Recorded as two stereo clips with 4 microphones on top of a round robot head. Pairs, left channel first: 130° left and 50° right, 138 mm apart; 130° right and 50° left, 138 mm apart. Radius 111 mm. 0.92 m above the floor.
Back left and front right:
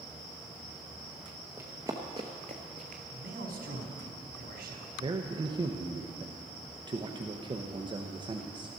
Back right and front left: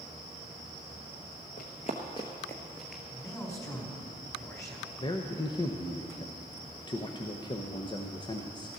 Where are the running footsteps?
120° right, 1.0 m; by 3.0 s 35° right, 1.0 m.